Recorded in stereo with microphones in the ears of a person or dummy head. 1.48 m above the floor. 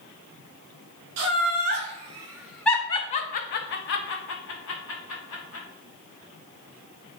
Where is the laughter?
60° right (ahead or behind), 0.9 m; by 5.7 s 75° left (ahead or behind), 1.6 m.